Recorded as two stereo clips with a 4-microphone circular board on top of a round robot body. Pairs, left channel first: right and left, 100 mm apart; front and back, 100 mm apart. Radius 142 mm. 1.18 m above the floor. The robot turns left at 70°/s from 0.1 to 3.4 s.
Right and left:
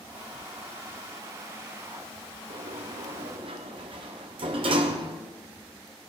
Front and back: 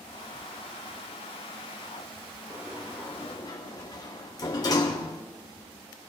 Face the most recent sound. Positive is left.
turn(degrees=55)